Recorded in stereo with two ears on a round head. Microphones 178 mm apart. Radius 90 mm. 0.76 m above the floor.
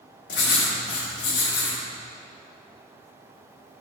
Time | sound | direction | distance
0.3 | writing | 60° left (ahead or behind) | 1.8 m